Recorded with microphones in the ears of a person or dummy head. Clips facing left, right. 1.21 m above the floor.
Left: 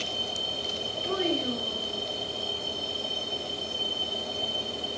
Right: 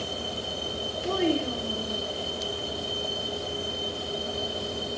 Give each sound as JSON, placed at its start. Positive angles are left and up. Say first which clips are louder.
{"t": 1.0, "sound": "a child speaking", "louder": "right 3 dB", "side_deg": -55, "distance_m": 6.0}